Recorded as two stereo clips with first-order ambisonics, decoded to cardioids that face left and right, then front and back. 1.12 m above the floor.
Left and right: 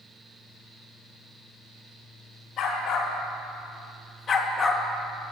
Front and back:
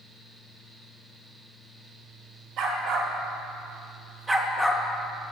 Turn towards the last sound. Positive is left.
turn(degrees=-5)